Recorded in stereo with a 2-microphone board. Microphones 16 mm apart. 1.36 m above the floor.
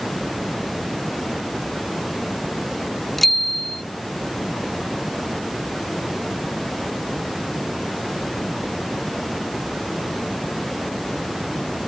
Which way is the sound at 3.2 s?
10° left (ahead or behind).